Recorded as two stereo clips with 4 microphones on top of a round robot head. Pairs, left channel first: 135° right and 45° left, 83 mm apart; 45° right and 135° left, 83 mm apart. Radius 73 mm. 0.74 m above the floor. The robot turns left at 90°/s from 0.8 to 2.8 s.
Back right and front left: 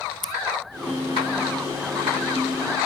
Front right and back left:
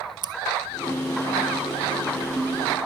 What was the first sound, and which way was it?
Scissors, 140° left.